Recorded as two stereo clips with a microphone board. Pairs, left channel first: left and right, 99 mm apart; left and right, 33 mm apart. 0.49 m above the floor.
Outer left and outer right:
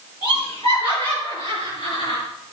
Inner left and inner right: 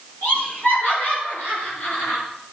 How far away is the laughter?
About 8 m.